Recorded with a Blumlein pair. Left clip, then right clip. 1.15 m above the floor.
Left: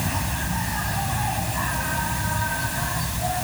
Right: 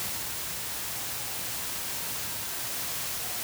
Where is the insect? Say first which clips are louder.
Left 9 dB; 40° left.